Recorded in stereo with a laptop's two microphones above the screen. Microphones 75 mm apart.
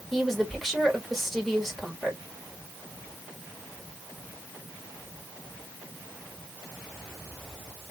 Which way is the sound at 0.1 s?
5° left (ahead or behind).